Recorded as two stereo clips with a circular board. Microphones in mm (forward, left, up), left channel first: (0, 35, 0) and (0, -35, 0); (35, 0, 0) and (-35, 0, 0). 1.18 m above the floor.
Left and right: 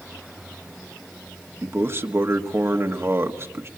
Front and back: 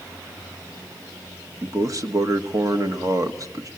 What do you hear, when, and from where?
1.6 s a man speaking: 145° right, 1.5 m